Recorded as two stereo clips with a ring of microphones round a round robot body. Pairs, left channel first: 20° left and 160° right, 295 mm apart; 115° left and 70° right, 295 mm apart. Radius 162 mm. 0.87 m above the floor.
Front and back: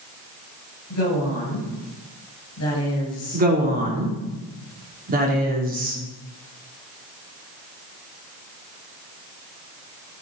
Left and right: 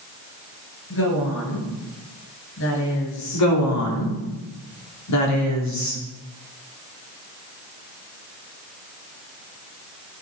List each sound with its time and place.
0.9 s a woman speaking: 65° left, 6 m
3.3 s a woman speaking: 140° left, 2.5 m